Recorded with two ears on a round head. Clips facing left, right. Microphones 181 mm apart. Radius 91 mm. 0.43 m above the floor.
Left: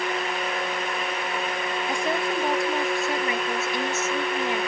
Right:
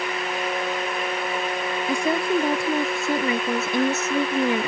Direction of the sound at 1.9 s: 85° right.